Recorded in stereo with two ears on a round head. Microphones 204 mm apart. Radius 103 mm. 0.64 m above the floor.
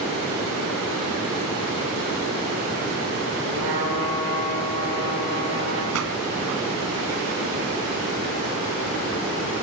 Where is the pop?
75° right (ahead or behind), 2.5 m.